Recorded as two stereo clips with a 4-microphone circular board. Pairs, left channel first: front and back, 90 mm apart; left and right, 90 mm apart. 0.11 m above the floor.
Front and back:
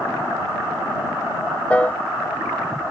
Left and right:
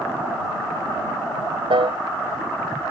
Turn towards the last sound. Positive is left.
turn(degrees=-75)